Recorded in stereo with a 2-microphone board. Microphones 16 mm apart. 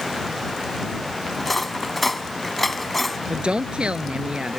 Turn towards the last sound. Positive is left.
turn(degrees=-85)